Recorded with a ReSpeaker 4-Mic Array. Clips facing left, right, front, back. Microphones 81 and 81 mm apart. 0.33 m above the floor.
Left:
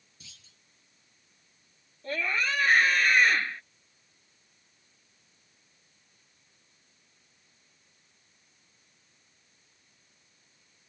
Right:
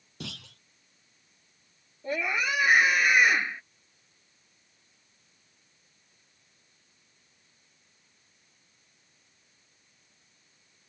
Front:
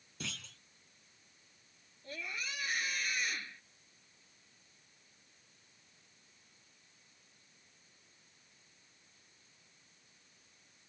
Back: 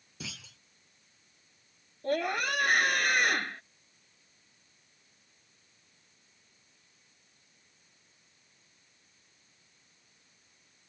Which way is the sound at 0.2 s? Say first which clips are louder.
Right 19 dB, back 1 dB; 95° right.